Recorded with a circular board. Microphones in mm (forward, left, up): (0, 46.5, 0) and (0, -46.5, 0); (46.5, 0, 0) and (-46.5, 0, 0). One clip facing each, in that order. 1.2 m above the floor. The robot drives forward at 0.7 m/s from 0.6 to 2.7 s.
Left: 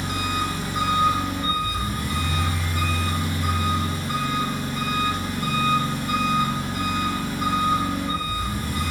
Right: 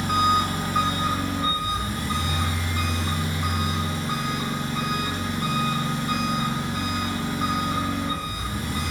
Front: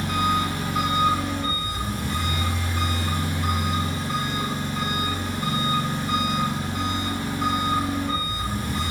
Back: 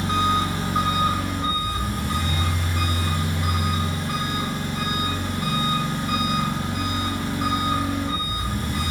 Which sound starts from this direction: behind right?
An engine running, at 0.0 s.